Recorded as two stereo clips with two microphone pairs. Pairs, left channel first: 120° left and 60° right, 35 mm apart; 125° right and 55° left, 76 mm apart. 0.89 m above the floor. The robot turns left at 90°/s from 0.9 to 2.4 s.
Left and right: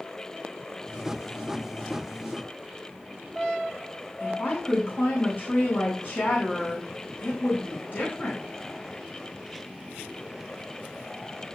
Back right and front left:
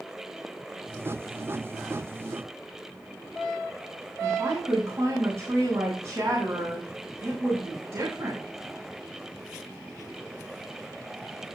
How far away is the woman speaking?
About 8 m.